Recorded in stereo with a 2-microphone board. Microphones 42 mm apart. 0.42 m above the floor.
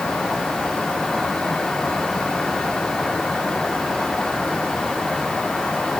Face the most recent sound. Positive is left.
No sound to turn to.